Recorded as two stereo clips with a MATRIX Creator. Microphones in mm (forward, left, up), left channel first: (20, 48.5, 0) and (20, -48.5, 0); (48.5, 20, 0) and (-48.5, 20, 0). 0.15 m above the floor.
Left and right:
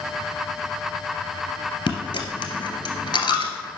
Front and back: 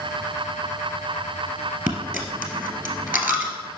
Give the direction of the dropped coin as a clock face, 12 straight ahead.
8 o'clock.